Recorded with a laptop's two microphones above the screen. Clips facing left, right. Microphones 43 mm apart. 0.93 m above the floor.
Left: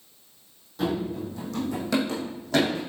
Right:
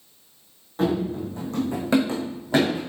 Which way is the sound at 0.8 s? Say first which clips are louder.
Right 4 dB; 45° right (ahead or behind).